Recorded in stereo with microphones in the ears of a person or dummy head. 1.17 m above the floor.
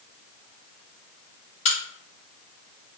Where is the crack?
40° left (ahead or behind), 1.7 m.